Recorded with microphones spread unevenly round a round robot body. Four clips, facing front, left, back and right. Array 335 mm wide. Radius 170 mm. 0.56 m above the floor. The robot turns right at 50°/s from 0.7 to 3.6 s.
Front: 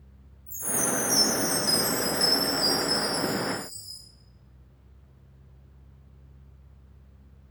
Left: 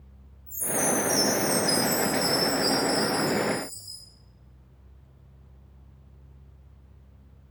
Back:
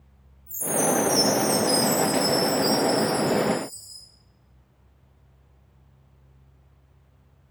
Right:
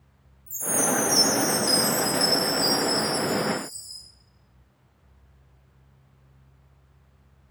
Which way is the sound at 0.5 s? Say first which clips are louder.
Right 1 dB, back 7 dB; 110° right.